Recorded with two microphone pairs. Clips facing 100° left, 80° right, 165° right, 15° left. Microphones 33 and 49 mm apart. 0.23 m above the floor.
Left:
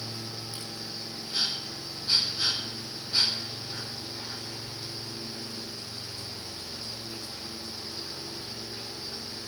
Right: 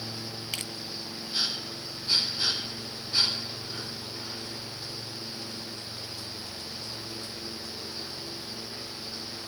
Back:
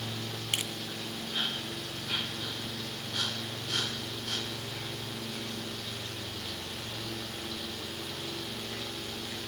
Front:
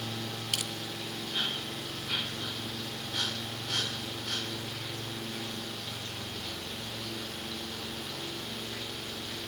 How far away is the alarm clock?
I don't hear an alarm clock.